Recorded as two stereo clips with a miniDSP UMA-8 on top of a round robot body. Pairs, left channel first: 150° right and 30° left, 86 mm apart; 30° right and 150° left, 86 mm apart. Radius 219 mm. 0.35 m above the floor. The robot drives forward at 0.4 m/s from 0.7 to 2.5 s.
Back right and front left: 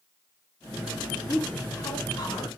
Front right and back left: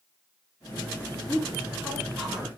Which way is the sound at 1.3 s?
100° right.